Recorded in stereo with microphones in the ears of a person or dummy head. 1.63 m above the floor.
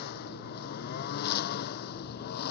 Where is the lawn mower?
60° left (ahead or behind).